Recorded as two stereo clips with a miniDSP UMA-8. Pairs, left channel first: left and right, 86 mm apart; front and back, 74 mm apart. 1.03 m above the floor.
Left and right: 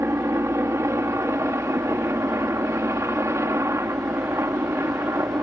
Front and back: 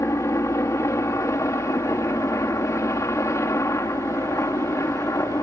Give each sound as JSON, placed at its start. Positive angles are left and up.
{"t": 0.0, "sound": "a helicopter", "azimuth_deg": -40}